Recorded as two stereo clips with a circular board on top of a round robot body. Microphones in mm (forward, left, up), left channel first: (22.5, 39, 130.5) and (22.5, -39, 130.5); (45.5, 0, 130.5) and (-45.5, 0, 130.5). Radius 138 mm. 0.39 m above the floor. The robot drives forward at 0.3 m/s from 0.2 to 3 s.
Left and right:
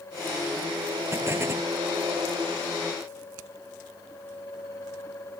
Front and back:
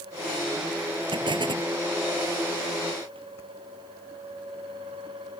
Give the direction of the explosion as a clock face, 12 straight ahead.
5 o'clock.